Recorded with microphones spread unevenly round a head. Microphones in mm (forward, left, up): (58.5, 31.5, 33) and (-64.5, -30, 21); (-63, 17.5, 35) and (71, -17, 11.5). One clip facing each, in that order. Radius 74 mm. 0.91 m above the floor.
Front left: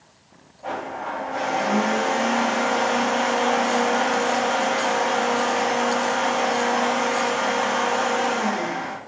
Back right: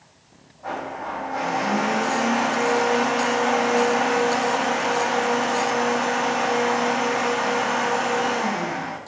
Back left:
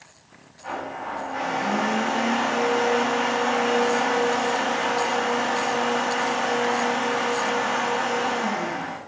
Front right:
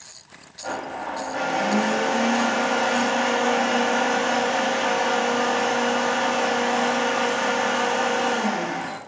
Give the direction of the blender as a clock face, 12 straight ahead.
1 o'clock.